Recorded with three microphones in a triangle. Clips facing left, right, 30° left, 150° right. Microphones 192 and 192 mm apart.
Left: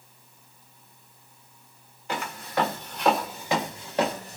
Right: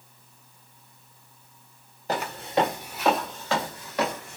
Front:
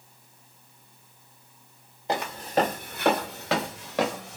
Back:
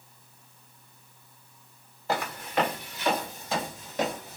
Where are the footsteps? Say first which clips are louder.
Right 4 dB, front 3 dB; 40° right, 0.8 m; by 4.4 s 40° left, 1.1 m.